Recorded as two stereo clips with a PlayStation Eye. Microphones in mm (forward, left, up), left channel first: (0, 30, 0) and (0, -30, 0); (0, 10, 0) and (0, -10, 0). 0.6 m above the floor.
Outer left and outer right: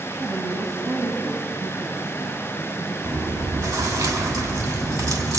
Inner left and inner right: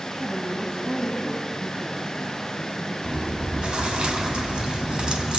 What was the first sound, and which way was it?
A woman speaking, 65° right (ahead or behind).